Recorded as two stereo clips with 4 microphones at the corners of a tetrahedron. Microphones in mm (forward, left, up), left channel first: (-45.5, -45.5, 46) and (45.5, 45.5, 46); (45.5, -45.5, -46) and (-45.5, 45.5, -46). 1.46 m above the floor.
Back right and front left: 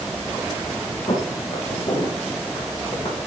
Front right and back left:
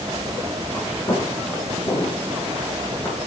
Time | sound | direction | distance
1.1 | footsteps | 110° right | 3 m